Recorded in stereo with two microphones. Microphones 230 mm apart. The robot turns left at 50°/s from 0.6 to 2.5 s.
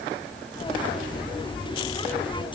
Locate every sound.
Only background noise.